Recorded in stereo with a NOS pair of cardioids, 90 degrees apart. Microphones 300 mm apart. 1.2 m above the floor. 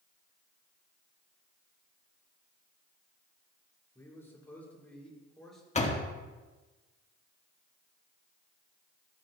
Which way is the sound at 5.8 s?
25° left.